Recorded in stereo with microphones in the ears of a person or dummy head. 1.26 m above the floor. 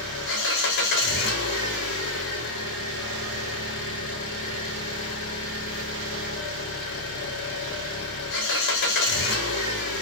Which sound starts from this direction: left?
An engine running, at 0.0 s.